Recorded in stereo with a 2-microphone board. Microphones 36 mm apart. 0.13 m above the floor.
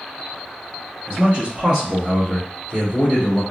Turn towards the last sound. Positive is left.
turn(degrees=-20)  # may be behind; listen again after turning